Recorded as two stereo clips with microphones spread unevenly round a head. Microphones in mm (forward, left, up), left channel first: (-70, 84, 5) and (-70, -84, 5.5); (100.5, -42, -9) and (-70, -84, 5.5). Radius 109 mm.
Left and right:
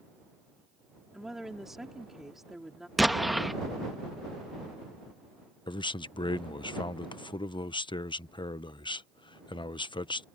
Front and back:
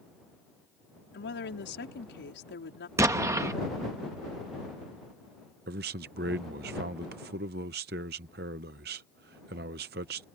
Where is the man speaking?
150° left.